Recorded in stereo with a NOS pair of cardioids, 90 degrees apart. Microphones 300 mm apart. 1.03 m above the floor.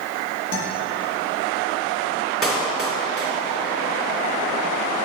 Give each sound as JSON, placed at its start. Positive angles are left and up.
{"t": 0.5, "sound": "a guitar", "azimuth_deg": 55, "distance_m": 1.9}
{"t": 2.4, "sound": "a clap", "azimuth_deg": 0, "distance_m": 2.5}